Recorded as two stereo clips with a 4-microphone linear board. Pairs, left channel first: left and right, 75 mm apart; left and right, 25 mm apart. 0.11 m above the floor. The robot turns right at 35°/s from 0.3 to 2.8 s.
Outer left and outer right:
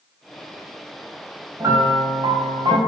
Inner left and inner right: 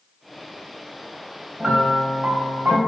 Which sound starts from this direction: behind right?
A piano, at 1.6 s.